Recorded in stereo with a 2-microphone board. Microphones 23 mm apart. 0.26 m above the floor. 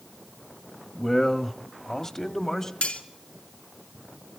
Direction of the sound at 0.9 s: 15° left (ahead or behind).